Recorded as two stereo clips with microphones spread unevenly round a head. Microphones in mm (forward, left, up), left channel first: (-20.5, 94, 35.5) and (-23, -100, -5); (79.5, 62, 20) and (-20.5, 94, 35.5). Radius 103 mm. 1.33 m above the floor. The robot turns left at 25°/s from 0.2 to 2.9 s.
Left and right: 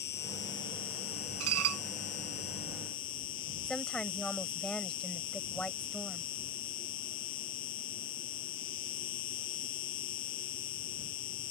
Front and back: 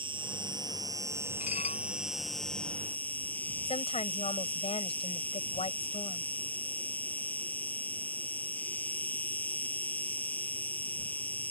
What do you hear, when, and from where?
0.0 s an insect: 125° left; by 11.5 s 60° left
1.4 s dishes clattering: 70° right; by 1.8 s 80° right
3.6 s a woman speaking: 5° left